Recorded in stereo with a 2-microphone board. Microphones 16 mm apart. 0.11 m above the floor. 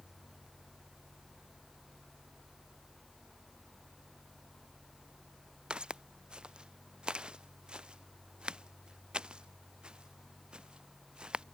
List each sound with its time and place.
5.7 s footsteps: 85° right; by 11.4 s 80° right